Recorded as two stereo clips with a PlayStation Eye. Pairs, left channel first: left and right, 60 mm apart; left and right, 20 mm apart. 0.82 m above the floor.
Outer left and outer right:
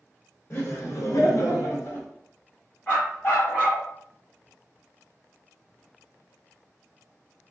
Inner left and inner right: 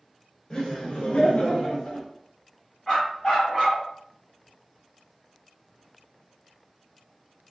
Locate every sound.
0.5 s laughter: 40° left (ahead or behind), 1.1 m; by 2.1 s 45° left (ahead or behind), 1.1 m
2.9 s a dog barking: 35° left (ahead or behind), 1.4 m